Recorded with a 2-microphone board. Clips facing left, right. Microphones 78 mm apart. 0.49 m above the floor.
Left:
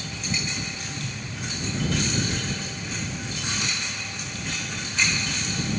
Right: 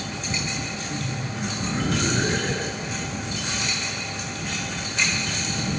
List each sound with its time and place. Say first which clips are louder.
0.9 s laughter: right 5 dB; 55° right (ahead or behind); by 3.1 s 50° right (ahead or behind)